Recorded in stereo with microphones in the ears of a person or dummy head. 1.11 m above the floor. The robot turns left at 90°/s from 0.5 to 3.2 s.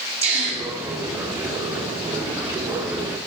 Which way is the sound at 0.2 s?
35° right (ahead or behind).